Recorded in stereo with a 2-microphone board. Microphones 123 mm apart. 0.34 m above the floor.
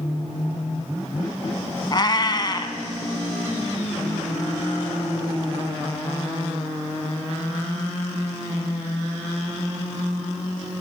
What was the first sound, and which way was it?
A cat meowing, 35° left (ahead or behind).